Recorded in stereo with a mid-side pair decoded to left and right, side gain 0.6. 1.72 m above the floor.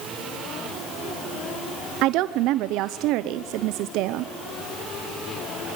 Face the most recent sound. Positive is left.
turn(degrees=-70)